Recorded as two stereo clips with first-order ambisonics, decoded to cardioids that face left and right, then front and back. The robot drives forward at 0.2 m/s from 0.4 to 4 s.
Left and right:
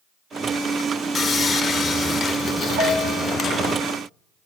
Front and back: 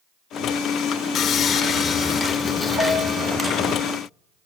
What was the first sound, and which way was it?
Sawing, 25° left.